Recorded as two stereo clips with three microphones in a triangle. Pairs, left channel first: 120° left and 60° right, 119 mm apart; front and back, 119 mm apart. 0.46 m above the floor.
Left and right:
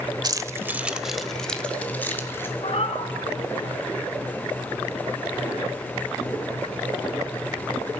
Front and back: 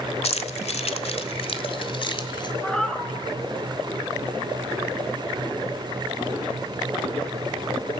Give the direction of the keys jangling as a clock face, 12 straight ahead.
12 o'clock.